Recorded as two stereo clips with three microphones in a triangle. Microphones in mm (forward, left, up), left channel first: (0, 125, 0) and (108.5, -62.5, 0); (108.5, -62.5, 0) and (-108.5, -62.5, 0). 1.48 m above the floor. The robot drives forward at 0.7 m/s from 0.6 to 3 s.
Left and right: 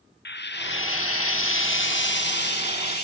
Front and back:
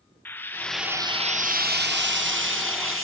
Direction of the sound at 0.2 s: 80° left.